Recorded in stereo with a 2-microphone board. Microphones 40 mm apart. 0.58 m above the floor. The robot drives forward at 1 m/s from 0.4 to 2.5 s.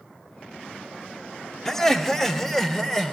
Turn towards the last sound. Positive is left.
turn(degrees=5)  # may be behind; listen again after turning